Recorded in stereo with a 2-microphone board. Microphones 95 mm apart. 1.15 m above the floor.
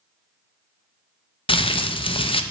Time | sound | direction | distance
1.5 | crumpling | 65° left (ahead or behind) | 0.6 m